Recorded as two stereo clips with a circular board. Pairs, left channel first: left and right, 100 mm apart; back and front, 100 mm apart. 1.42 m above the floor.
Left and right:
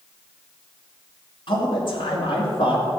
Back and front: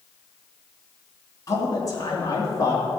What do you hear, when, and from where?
1.5 s a man speaking: 125° left, 2.5 m